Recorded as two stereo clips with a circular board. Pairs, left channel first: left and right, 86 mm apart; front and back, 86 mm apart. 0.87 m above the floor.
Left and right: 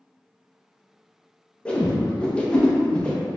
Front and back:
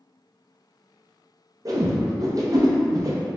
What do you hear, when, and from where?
1.6 s a whoosh: 165° left, 0.7 m